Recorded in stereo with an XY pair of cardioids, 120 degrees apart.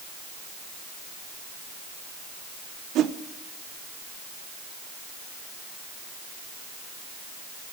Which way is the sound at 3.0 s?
65° right.